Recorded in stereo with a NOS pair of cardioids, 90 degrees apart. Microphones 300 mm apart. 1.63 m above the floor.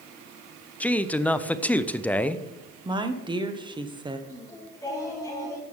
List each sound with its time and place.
0.8 s a man speaking: 5° left, 0.6 m
2.9 s a woman speaking: 15° right, 1.4 m
4.3 s singing: 10° left, 4 m